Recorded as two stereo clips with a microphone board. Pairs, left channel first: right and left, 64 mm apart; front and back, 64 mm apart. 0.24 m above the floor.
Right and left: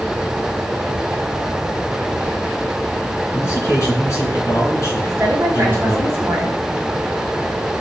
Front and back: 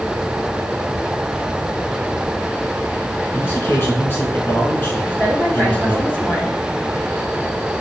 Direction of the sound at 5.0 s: 55° left.